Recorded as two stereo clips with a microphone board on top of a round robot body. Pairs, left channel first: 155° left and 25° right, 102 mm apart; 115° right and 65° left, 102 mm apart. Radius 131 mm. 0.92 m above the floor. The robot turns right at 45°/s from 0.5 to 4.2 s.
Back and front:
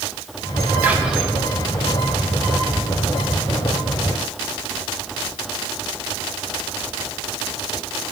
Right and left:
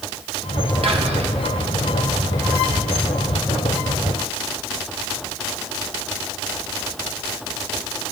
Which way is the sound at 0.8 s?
50° left.